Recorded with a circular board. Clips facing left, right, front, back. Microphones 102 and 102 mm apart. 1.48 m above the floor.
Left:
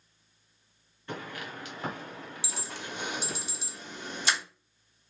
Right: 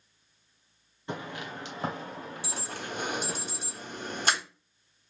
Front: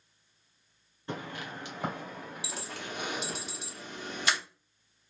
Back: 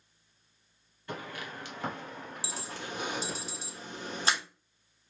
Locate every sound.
1.1 s footsteps: 40° right, 1.7 m; by 3.4 s 100° right, 2 m
2.4 s an alarm: 125° right, 1.1 m